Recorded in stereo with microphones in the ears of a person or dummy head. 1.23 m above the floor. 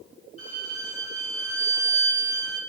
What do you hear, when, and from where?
0.4 s a violin: 40° left (ahead or behind), 6.5 m